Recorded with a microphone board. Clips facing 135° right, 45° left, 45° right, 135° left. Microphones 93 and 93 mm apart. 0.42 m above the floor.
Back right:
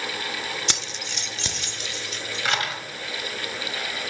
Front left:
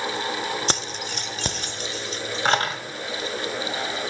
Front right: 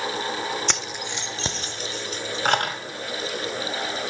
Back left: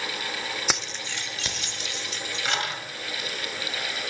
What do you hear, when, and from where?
0.7 s keys jangling: 55° left, 0.6 m; by 2.8 s 10° right, 1.6 m